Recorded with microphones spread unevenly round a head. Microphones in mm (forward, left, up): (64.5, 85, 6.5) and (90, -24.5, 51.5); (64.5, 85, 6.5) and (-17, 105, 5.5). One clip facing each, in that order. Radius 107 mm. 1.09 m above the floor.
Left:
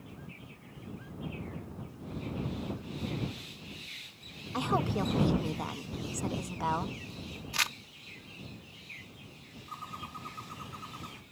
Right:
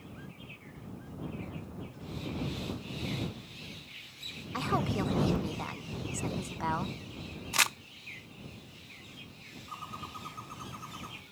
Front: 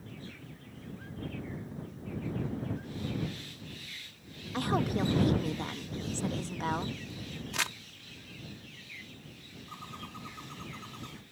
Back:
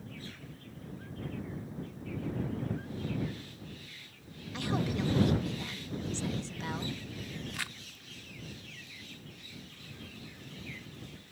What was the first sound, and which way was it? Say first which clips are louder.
A woman speaking: left 1 dB, front 3 dB; 35° left.